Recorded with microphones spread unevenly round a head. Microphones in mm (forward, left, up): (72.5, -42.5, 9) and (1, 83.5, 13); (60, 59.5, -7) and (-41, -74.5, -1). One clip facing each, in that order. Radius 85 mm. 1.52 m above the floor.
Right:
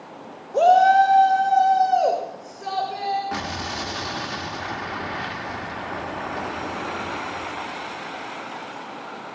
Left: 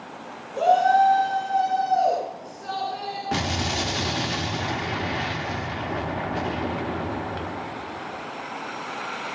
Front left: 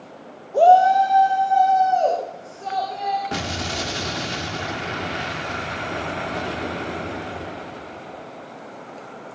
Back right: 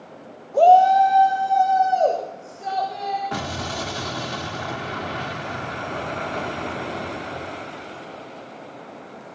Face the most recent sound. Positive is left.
turn(degrees=90)